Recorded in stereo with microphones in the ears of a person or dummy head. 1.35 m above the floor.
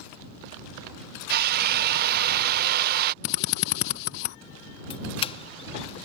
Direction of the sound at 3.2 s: 45° left (ahead or behind).